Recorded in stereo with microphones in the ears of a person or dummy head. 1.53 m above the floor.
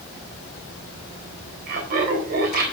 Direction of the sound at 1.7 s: 50° right (ahead or behind).